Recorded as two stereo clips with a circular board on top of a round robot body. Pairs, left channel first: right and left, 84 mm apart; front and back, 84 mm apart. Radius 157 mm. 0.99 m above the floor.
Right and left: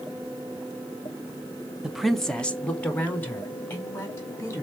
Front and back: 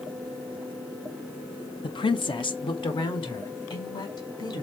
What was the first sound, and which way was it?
A woman speaking, 10° left.